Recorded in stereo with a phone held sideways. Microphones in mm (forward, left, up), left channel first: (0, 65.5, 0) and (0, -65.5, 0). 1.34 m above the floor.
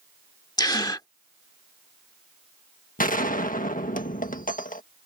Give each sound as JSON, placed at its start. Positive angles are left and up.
{"t": 0.6, "sound": "a gasp", "side_deg": 30}
{"t": 3.0, "sound": "a gunshot", "side_deg": 85}